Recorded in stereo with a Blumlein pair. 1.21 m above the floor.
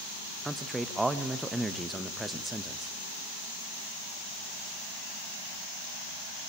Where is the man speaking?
5° right, 1.1 m.